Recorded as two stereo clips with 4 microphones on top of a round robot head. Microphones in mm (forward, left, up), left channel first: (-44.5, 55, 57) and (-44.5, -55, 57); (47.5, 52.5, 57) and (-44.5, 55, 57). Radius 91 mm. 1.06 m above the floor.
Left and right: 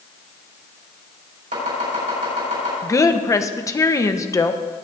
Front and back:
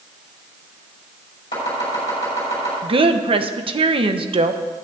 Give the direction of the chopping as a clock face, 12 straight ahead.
2 o'clock.